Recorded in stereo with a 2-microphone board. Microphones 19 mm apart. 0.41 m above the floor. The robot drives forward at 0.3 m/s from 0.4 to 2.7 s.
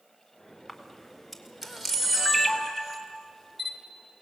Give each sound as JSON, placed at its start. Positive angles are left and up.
{"t": 0.7, "sound": "a camera shutter", "side_deg": -10, "distance_m": 1.4}